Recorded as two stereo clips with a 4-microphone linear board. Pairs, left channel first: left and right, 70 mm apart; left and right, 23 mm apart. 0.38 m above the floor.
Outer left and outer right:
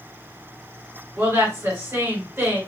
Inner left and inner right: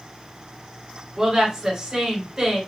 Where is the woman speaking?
35° right (ahead or behind), 1.6 m.